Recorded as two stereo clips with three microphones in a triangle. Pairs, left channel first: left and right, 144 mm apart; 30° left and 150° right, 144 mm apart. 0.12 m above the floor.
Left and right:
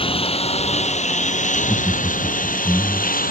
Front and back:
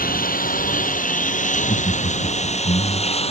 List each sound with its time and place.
0.0 s a lawn mower: 40° left; by 3.3 s 75° left
1.5 s laughter: straight ahead